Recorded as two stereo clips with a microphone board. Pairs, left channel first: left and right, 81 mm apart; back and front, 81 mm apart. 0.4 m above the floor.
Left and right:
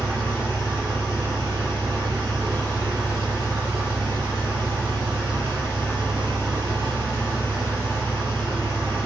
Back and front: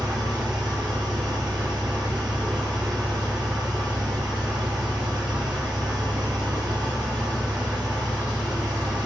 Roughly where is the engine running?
Ahead right.